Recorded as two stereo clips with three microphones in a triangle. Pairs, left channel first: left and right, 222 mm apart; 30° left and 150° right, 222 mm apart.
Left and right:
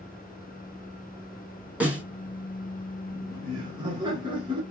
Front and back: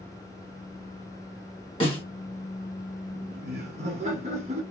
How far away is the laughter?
About 1.2 m.